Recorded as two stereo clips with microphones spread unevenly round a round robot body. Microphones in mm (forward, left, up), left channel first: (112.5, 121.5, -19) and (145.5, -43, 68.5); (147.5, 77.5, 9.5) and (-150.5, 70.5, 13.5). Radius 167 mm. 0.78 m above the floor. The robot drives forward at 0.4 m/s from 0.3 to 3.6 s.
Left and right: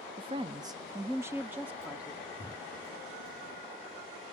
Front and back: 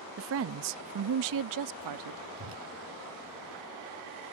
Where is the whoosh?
Straight behind.